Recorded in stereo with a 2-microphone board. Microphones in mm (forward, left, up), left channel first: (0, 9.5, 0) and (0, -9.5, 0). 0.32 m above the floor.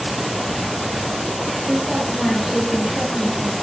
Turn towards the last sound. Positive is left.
turn(degrees=-10)  # may be behind; listen again after turning